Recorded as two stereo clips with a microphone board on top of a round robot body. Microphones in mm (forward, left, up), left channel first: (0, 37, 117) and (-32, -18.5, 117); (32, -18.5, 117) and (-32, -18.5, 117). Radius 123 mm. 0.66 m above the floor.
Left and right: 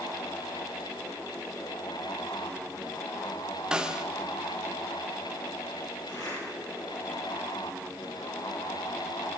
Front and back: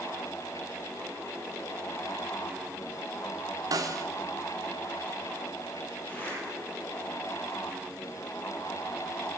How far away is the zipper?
About 9 m.